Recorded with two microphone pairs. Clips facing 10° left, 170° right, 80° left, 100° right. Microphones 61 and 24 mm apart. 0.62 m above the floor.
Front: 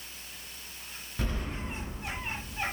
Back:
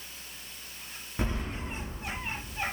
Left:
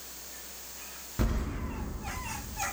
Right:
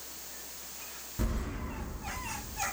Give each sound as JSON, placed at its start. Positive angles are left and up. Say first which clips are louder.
{"t": 1.2, "sound": "keys jangling", "louder": "back 2 dB, left 3 dB", "azimuth_deg": 125, "distance_m": 0.5}